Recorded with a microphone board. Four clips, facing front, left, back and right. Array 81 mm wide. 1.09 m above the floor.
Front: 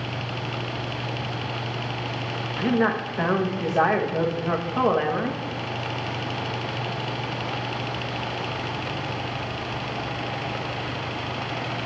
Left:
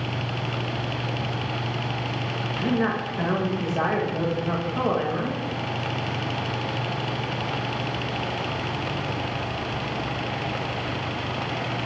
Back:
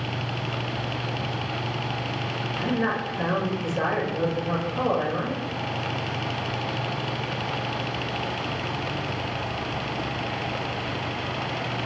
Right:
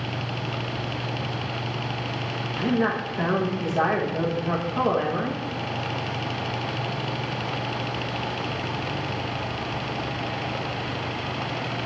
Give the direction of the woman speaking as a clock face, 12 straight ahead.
12 o'clock.